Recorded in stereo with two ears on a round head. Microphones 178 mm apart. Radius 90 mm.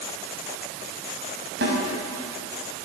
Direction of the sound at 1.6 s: 55° right (ahead or behind).